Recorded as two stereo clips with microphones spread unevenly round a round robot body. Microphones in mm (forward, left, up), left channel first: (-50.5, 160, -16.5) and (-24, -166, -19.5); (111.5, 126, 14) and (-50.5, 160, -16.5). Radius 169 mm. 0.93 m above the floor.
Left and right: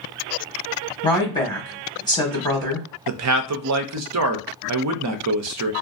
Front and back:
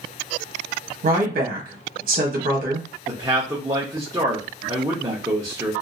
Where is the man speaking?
125° right, 0.5 m.